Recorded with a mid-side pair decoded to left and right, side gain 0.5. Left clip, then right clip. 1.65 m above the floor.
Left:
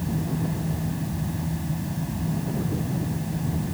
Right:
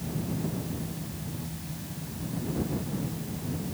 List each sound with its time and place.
0.0 s a fan: 55° left